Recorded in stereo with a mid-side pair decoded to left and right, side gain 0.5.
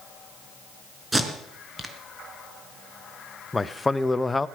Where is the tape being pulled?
15° right, 3.5 m.